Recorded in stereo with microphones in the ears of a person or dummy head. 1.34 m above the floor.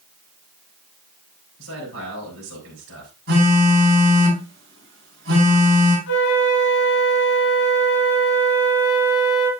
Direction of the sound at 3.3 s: 55° right (ahead or behind).